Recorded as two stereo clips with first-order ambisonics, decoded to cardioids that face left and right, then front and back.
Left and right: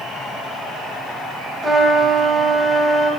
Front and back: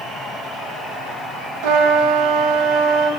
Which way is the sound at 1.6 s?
170° right.